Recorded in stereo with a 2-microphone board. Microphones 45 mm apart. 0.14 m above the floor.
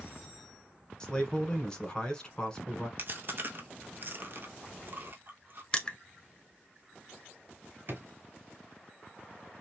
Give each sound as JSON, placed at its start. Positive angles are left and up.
{"t": 1.0, "sound": "a man speaking", "side_deg": 20, "distance_m": 1.1}
{"t": 3.0, "sound": "chewing", "side_deg": -50, "distance_m": 0.7}
{"t": 5.7, "sound": "crushing", "side_deg": 25, "distance_m": 0.5}
{"t": 7.9, "sound": "a drawer", "side_deg": -55, "distance_m": 1.2}